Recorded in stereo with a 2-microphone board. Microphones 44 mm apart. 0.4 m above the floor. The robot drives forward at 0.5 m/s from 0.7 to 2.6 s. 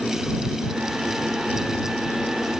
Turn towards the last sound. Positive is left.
No sound to turn to.